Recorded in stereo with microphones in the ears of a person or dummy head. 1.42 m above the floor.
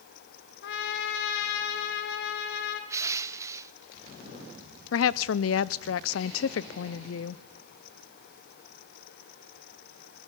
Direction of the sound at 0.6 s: 70° left (ahead or behind).